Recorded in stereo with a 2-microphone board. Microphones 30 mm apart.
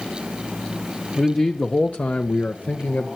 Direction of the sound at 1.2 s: 30° left (ahead or behind).